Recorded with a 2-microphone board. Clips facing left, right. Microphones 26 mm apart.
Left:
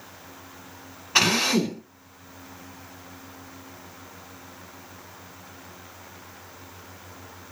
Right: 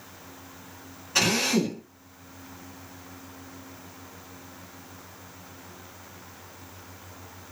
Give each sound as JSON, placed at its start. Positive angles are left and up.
{"t": 1.1, "sound": "a drill", "side_deg": 45, "distance_m": 1.7}